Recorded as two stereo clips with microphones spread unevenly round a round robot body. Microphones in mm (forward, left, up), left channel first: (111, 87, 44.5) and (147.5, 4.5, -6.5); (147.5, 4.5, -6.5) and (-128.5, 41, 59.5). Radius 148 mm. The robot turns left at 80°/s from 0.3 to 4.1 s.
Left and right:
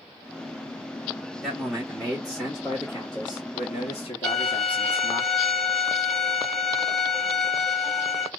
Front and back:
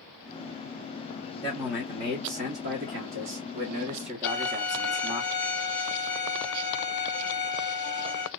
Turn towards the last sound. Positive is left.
turn(degrees=5)